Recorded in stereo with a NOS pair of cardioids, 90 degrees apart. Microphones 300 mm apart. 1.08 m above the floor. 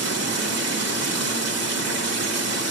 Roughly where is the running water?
Ahead right.